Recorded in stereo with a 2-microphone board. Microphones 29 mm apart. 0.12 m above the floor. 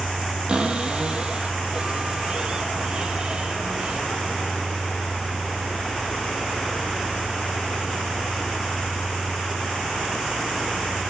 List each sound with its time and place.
0.5 s a cupboard door: 30° right (ahead or behind), 3.5 m